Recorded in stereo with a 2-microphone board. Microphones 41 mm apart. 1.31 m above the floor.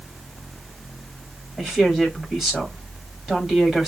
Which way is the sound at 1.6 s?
15° right (ahead or behind).